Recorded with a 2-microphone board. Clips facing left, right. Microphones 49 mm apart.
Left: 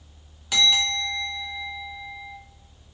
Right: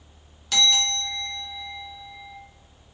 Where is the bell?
15° left (ahead or behind), 1.5 m.